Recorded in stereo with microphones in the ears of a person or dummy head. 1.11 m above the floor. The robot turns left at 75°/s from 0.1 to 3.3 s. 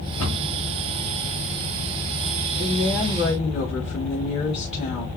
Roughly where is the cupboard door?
Centre.